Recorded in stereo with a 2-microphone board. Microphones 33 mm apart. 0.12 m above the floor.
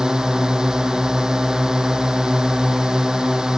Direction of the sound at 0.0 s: 20° right (ahead or behind).